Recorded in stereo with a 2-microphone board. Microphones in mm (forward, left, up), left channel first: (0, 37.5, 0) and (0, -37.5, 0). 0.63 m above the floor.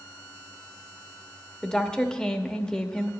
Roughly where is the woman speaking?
Centre.